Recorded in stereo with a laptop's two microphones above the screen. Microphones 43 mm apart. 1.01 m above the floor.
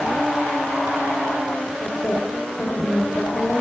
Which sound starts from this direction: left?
A woman speaking, at 1.8 s.